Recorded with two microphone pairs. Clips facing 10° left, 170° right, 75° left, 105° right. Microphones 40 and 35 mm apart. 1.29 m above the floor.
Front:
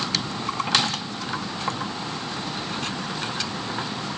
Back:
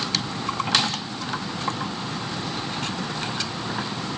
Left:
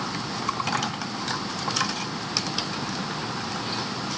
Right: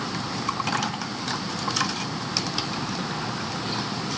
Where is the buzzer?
I don't hear a buzzer.